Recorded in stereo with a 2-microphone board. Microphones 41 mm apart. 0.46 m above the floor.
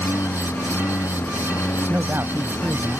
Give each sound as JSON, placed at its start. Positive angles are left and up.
{"t": 0.0, "sound": "a lawn mower", "side_deg": 65}
{"t": 1.9, "sound": "a man speaking", "side_deg": -70}